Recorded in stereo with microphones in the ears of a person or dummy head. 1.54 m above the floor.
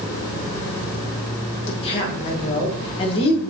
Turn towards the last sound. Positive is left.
turn(degrees=30)  # may be behind; listen again after turning